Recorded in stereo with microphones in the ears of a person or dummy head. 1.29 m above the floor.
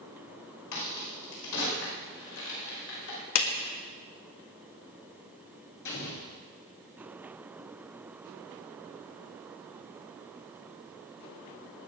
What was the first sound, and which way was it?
A crack, 80° left.